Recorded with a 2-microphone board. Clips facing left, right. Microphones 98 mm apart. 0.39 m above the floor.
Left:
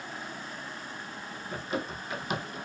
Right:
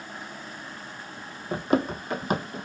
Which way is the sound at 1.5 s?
65° right (ahead or behind).